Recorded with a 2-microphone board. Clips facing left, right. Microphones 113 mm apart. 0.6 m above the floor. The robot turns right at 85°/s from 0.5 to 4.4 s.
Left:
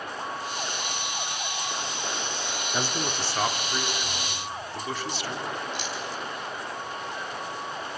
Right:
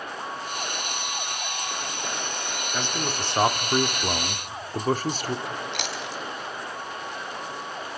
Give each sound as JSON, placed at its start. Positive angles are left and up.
{"t": 2.7, "sound": "a man speaking", "azimuth_deg": 160, "distance_m": 1.4}
{"t": 5.5, "sound": "chewing", "side_deg": -75, "distance_m": 1.8}